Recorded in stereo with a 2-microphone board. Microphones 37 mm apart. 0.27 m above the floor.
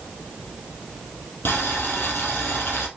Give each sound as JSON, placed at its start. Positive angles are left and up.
{"t": 1.4, "sound": "boiling", "side_deg": 75, "distance_m": 2.5}